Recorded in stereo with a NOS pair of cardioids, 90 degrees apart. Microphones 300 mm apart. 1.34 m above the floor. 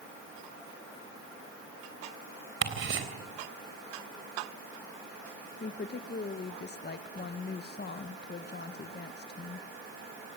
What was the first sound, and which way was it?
Ticking, 45° right.